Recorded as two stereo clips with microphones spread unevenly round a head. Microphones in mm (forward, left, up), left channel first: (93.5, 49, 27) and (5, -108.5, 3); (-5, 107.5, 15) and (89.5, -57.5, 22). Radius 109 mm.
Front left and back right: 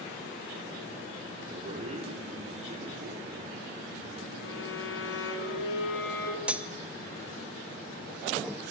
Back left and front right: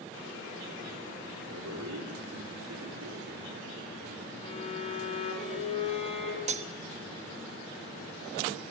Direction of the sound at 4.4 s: 60° left.